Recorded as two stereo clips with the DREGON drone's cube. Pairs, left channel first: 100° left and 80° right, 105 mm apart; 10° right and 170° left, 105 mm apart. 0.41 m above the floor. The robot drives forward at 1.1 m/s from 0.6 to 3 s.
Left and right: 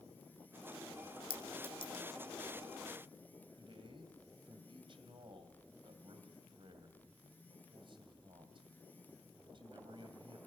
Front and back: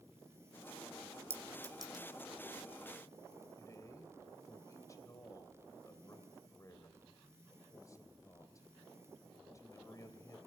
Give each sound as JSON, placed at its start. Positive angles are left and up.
{"t": 1.3, "sound": "a clink", "azimuth_deg": 105, "distance_m": 1.8}
{"t": 3.6, "sound": "a man speaking", "azimuth_deg": -65, "distance_m": 2.5}